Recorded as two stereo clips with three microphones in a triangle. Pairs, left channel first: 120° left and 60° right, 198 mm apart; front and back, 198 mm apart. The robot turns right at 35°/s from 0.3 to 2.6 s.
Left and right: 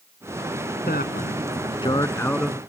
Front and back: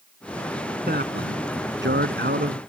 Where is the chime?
I don't hear a chime.